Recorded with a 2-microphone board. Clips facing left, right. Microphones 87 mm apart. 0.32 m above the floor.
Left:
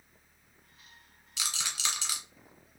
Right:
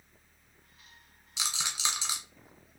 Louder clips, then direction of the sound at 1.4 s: Right 2 dB; 20° right (ahead or behind).